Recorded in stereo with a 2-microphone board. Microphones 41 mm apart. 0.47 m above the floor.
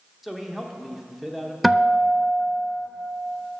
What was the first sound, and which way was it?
A man speaking, 5° right (ahead or behind).